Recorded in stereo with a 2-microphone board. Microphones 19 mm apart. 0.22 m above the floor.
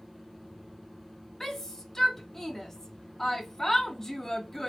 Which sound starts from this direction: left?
A shout, at 1.4 s.